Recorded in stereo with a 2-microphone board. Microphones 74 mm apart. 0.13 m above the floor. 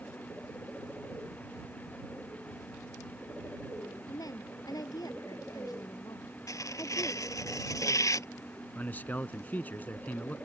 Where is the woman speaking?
55° left (ahead or behind); by 7.5 s 40° left (ahead or behind).